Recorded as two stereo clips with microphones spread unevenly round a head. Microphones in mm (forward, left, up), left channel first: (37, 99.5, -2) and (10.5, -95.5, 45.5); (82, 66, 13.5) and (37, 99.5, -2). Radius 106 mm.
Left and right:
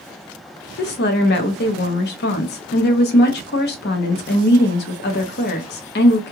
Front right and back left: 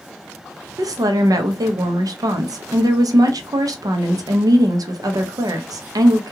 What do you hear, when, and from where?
0.8 s a woman speaking: 130° left, 0.6 m